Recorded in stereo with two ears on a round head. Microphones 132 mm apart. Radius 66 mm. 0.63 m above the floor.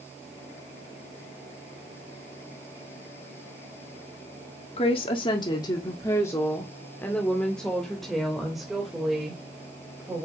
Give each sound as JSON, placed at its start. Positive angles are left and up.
{"t": 4.8, "sound": "a woman speaking", "side_deg": 40, "distance_m": 1.5}